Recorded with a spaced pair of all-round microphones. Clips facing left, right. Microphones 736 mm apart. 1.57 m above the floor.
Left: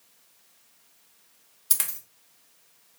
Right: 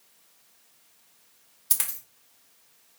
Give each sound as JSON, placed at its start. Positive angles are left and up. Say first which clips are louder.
{"t": 1.7, "sound": "a dropped coin", "louder": "left 1 dB", "side_deg": 15, "distance_m": 1.1}